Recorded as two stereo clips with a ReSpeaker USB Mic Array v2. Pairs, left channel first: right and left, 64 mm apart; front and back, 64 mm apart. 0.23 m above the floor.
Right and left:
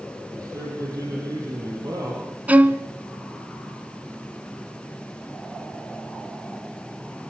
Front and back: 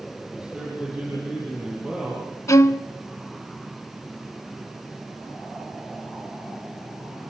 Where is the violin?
30° left, 0.6 m.